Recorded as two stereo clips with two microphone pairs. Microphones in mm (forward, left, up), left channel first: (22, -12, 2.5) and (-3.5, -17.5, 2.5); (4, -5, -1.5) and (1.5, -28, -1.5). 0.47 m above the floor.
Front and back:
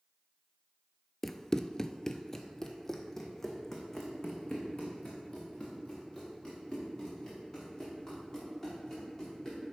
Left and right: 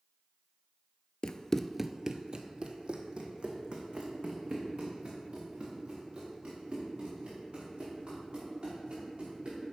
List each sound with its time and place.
1.2 s running footsteps: 85° left, 0.5 m; by 9.7 s 65° right, 7.5 m